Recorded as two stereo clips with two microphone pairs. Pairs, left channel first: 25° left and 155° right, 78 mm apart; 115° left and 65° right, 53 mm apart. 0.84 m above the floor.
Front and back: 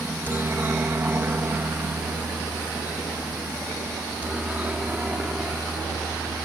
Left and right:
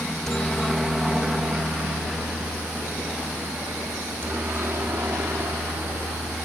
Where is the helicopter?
Straight behind; by 6.5 s 80° right.